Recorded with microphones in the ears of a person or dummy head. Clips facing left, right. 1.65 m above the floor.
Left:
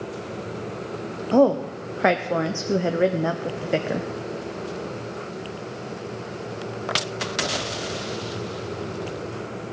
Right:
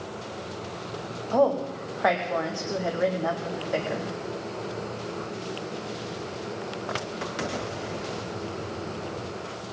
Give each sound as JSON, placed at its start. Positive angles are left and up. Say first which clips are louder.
{"t": 1.3, "sound": "a woman speaking", "louder": "left 5 dB", "side_deg": 40, "distance_m": 0.6}